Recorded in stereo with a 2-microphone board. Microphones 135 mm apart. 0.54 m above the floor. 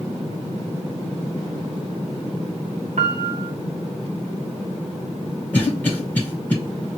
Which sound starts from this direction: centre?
A cough, at 5.5 s.